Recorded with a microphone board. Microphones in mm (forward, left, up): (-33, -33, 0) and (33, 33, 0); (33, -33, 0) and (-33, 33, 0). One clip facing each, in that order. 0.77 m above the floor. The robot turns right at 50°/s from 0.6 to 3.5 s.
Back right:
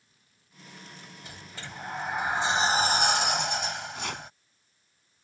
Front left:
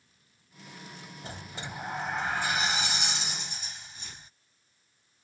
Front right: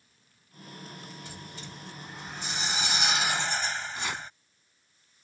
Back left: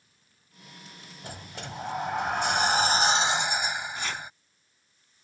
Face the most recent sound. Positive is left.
turn(degrees=-125)